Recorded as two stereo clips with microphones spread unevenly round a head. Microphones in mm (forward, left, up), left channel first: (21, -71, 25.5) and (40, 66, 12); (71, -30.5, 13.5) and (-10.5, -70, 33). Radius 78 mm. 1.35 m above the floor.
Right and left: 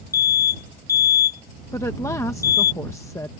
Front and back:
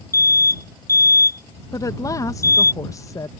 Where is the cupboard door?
I don't hear a cupboard door.